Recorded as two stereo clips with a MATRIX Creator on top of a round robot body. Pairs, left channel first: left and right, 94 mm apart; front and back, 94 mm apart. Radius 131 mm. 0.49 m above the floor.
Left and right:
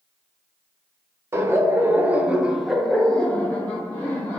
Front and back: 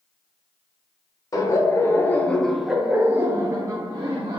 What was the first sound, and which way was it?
Laughter, 35° right.